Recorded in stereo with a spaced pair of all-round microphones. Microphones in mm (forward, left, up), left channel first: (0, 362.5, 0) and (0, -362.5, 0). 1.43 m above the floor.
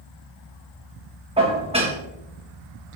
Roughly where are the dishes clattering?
Centre.